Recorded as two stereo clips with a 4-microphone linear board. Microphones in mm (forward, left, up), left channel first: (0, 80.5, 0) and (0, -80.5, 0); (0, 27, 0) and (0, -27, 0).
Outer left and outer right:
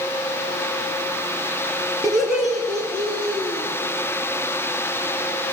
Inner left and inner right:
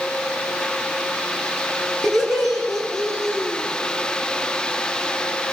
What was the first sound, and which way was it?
Laughter, centre (ahead or behind).